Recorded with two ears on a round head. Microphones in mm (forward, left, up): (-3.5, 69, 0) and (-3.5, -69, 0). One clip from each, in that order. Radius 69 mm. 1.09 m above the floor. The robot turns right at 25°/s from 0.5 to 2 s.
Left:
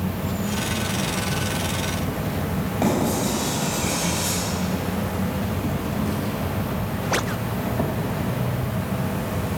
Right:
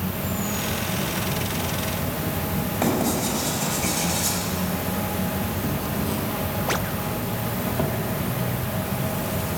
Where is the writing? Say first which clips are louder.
Left 1 dB; 45° right (ahead or behind), 4 m.